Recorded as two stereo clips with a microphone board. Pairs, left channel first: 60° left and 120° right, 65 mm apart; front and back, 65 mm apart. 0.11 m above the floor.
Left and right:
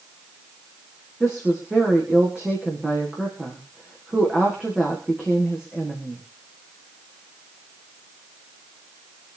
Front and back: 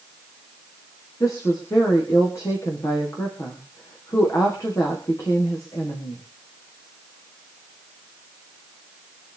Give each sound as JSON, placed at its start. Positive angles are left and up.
{"t": 1.2, "sound": "a woman speaking", "azimuth_deg": -40, "distance_m": 7.0}